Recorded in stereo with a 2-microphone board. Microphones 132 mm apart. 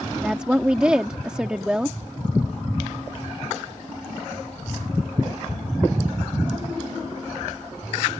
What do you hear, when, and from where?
0.2 s a woman speaking: 5° right (ahead or behind)